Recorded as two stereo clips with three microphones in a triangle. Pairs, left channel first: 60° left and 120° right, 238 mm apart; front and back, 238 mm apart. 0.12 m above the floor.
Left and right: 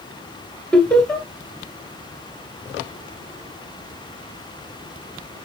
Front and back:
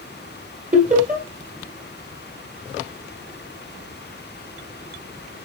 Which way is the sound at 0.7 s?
145° left.